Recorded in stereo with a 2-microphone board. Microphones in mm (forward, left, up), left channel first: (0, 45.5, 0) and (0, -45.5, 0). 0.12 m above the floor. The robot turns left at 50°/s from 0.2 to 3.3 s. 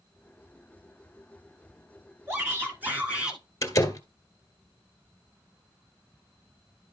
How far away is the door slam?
About 1.5 m.